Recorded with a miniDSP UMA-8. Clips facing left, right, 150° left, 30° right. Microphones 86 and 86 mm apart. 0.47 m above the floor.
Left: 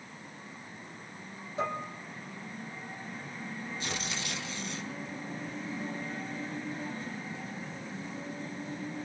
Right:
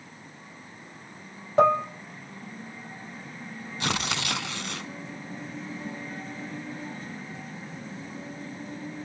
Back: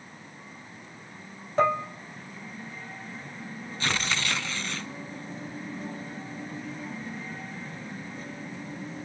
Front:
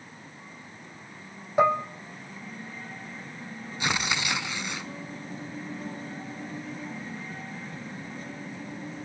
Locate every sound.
1.6 s dishes clattering: 105° right, 1.3 m
3.8 s tearing paper: 105° right, 1.1 m